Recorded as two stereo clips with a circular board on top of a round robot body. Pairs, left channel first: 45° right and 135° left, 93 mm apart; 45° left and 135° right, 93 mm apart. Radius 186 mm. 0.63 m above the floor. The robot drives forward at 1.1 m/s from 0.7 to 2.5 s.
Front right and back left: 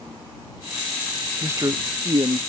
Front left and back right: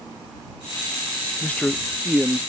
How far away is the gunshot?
No gunshot in this recording.